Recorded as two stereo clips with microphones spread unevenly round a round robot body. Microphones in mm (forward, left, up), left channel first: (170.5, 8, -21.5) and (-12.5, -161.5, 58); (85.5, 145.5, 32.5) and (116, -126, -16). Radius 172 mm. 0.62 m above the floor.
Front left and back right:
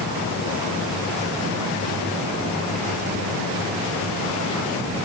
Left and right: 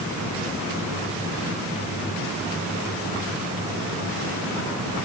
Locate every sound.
Only background noise.